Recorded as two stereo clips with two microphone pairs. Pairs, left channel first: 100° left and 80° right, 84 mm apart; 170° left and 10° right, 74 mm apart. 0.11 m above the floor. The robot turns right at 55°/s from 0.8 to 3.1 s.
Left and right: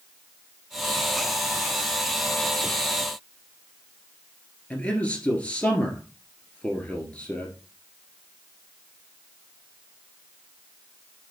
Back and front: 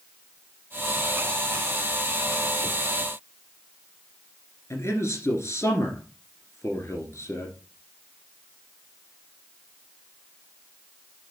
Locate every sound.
4.7 s a man speaking: 165° left, 1.8 m